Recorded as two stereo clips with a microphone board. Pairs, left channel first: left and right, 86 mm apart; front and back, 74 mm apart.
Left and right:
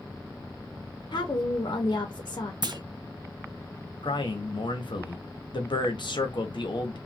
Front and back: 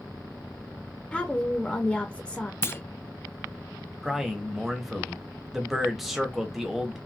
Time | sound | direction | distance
1.1 | a woman speaking | 75° left | 0.8 m
2.6 | a clunk | 60° right | 0.5 m
4.0 | a man speaking | 95° left | 0.9 m